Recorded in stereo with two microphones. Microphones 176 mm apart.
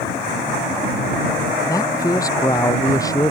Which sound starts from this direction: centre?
A man speaking, at 1.7 s.